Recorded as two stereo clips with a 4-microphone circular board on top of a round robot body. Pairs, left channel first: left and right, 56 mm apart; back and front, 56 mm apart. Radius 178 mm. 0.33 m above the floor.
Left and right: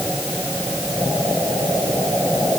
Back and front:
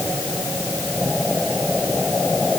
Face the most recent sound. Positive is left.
No sound to turn to.